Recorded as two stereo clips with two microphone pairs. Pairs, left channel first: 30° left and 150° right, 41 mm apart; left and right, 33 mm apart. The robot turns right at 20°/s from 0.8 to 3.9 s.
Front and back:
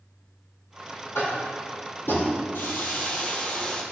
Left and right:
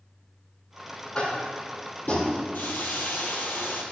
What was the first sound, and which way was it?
Tapping, 30° left.